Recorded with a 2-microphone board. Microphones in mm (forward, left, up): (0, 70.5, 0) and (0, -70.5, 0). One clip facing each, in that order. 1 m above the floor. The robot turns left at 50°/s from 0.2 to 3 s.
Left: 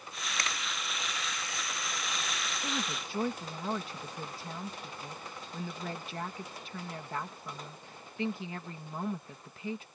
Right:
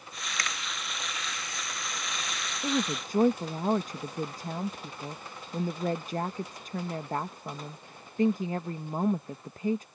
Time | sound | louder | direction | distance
0.4 | a finger snap | even | 30° left (ahead or behind) | ?
2.6 | a woman speaking | right 10 dB | 25° right (ahead or behind) | ?